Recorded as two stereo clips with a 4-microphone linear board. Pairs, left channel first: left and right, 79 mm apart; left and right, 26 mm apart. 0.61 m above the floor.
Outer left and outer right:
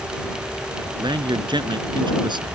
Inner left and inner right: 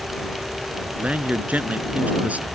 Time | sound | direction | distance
1.0 | a man speaking | 70° right (ahead or behind) | ?